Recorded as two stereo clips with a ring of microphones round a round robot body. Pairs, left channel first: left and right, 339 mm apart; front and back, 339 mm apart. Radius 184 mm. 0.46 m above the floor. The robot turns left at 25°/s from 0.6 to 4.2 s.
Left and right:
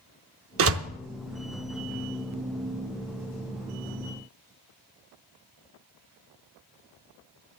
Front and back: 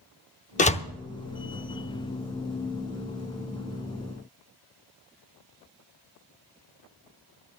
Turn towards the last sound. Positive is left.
turn(degrees=-150)